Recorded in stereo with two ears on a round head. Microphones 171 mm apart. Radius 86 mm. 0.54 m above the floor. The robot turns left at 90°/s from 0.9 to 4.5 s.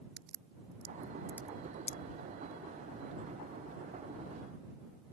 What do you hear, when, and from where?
0.2 s a crack: 55° right (ahead or behind); by 2.0 s 45° left (ahead or behind)